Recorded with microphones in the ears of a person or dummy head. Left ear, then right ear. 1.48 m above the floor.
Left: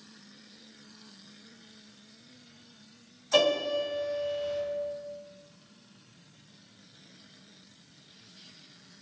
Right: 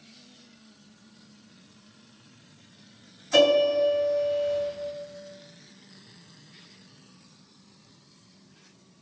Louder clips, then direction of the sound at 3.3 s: Right 6 dB; 20° left (ahead or behind).